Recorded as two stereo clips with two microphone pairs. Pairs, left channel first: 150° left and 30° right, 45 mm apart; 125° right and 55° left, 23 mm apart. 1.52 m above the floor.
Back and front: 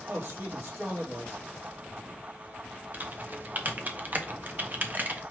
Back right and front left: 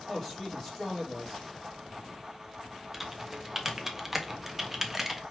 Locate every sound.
0.1 s a man speaking: 50° right, 3 m
2.9 s typing on a keyboard: 15° right, 0.8 m